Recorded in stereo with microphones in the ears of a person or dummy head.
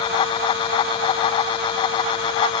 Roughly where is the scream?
No scream in this recording.